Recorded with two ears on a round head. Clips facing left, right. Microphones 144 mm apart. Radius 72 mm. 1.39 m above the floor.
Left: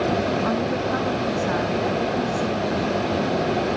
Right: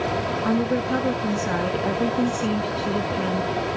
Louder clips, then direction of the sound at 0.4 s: Right 1 dB; 30° right (ahead or behind).